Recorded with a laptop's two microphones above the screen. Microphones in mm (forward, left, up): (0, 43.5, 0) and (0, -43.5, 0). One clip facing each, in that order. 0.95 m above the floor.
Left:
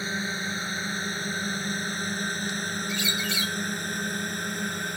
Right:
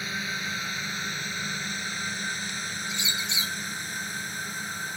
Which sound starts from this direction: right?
A bird, at 2.9 s.